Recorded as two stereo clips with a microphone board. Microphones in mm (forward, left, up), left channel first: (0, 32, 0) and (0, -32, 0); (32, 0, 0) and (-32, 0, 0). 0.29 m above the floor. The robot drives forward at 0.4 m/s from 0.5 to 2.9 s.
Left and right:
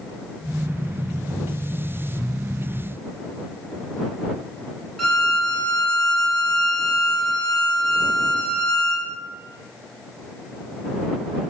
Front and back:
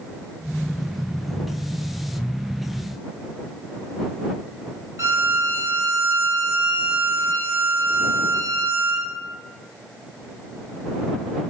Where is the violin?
175° left, 0.7 m.